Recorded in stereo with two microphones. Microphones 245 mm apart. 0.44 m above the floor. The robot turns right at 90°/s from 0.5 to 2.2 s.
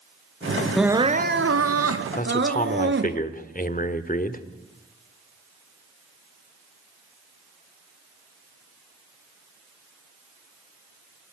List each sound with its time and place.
0.8 s crying: straight behind, 1.1 m; by 3.2 s 50° right, 1.1 m
2.2 s a man speaking: 35° left (ahead or behind), 1.3 m